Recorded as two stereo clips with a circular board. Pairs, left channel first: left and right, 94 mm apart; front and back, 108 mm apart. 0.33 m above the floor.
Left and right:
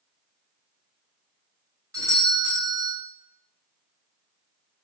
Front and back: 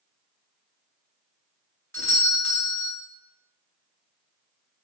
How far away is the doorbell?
About 2 m.